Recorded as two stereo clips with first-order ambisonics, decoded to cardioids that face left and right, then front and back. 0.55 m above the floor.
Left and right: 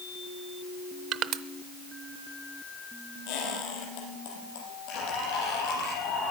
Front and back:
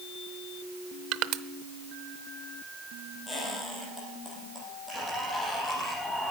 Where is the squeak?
80° left, 6 m.